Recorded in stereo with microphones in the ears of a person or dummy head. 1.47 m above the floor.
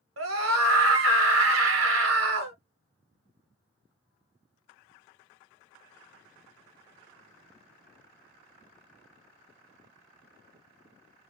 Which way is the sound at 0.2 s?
65° right (ahead or behind).